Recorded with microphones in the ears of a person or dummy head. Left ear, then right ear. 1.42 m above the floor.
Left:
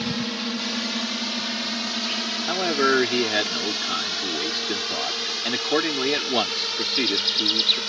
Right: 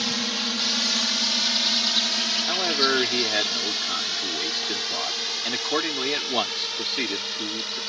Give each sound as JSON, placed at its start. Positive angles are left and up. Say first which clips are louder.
{"t": 0.0, "sound": "a drone", "louder": "right 3 dB", "side_deg": -40}
{"t": 2.5, "sound": "a man speaking", "louder": "left 4 dB", "side_deg": -15}